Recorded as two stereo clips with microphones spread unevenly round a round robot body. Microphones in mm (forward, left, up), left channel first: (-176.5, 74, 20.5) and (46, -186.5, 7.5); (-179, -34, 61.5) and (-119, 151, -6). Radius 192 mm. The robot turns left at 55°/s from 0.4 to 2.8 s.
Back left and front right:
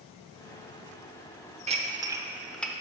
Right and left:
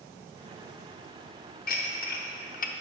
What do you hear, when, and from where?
1.7 s dishes clattering: 90° right, 0.7 m; by 2.7 s 145° right, 0.7 m